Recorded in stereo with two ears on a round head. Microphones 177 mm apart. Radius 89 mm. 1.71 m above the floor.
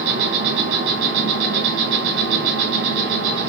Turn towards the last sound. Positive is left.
turn(degrees=-70)  # may be behind; listen again after turning